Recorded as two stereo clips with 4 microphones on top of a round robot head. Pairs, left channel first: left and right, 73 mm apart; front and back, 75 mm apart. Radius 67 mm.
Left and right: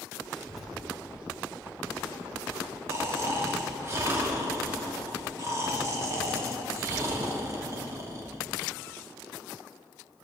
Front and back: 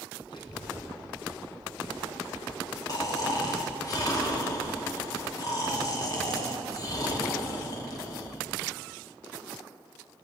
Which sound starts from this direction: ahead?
A child speaking, at 0.3 s.